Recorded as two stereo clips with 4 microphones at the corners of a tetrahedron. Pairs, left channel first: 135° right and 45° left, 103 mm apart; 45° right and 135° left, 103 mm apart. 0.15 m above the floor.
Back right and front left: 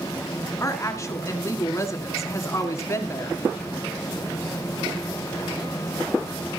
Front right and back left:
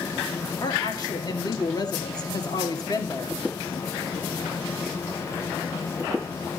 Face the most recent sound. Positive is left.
turn(degrees=-80)